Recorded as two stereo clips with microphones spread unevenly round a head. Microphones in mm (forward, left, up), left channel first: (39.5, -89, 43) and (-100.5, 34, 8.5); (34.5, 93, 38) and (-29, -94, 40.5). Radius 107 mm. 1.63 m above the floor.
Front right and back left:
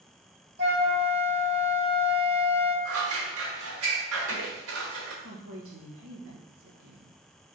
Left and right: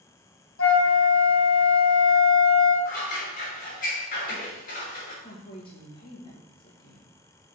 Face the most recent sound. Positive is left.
turn(degrees=140)